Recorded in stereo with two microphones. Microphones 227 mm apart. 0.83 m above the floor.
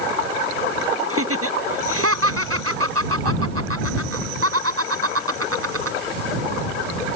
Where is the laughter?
70° right (ahead or behind).